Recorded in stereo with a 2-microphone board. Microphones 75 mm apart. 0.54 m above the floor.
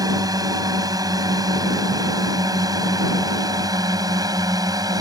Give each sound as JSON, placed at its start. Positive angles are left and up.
{"t": 0.0, "sound": "a drone", "side_deg": -55}